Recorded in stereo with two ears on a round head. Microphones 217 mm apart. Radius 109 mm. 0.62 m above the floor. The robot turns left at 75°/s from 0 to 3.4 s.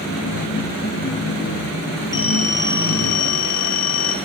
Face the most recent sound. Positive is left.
turn(degrees=70)